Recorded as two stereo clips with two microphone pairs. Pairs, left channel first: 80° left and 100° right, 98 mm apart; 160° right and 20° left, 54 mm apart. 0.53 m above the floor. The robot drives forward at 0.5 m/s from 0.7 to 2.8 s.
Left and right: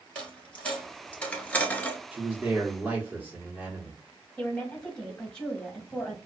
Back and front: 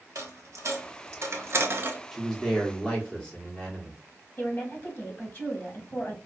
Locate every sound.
0.1 s a dropped coin: 5° left, 1.0 m; by 2.0 s 20° left, 0.5 m
2.1 s a man speaking: 75° right, 1.0 m; by 4.0 s 135° right, 1.0 m
4.4 s a woman speaking: 165° left, 1.3 m